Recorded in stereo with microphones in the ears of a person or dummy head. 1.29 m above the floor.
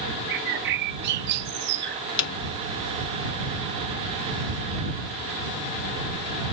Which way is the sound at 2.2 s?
60° left (ahead or behind).